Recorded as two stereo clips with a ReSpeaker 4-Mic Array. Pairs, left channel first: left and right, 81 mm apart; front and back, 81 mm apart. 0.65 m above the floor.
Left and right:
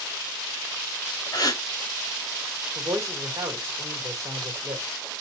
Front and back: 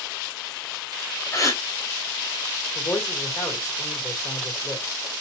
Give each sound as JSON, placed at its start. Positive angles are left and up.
{"t": 1.3, "sound": "a gasp", "azimuth_deg": 55, "distance_m": 1.4}
{"t": 2.8, "sound": "a man speaking", "azimuth_deg": -40, "distance_m": 1.9}